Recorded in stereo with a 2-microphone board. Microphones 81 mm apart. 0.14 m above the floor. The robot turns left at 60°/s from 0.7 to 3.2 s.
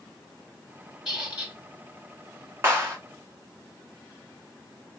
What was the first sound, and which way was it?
A squeak, 5° right.